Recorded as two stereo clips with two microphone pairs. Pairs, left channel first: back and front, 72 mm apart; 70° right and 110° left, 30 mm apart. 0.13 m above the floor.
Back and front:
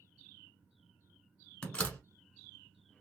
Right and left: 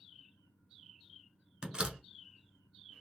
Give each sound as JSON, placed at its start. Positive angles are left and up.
{"t": 1.6, "sound": "a door slam", "azimuth_deg": 125, "distance_m": 0.9}